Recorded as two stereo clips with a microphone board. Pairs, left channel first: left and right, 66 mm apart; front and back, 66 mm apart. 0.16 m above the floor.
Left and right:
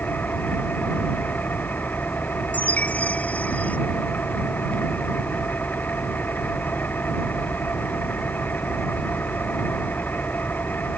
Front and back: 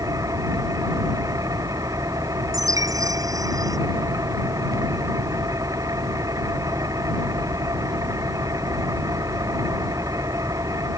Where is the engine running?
150° left.